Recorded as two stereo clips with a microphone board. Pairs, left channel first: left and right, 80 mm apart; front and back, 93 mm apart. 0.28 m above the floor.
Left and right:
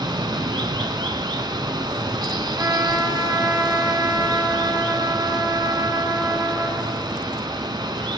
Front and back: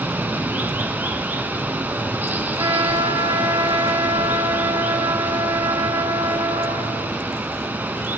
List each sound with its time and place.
0.0 s running water: 110° right, 1.7 m
2.6 s a trumpet: 140° right, 3.5 m